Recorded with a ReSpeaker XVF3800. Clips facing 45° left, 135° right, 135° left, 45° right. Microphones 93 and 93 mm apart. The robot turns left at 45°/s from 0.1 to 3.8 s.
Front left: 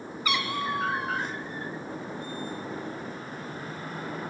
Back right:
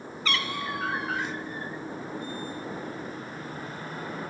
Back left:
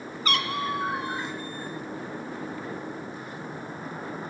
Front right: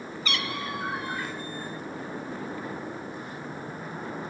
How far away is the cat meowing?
About 0.7 m.